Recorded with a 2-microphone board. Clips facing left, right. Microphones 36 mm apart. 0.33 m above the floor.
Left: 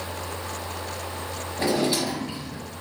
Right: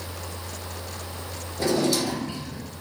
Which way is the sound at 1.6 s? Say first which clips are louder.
Right 1 dB; 35° left (ahead or behind).